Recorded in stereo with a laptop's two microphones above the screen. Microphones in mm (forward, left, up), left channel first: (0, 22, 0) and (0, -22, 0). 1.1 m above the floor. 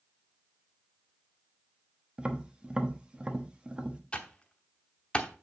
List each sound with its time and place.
2.2 s tapping: 20° right (ahead or behind), 0.9 m
4.1 s typing on a keyboard: 25° left (ahead or behind), 0.9 m